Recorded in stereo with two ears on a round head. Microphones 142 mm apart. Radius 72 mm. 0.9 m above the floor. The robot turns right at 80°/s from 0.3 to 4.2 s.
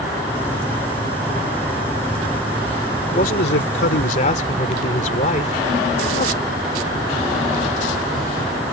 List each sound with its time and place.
3.0 s a man speaking: 35° left; by 6.5 s 130° left